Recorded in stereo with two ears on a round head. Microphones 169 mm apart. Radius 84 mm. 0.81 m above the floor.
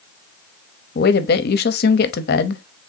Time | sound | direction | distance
0.9 | a woman speaking | 55° left (ahead or behind) | 0.7 m